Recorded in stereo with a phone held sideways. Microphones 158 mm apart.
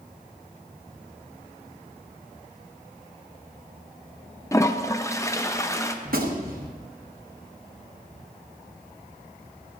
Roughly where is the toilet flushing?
Centre.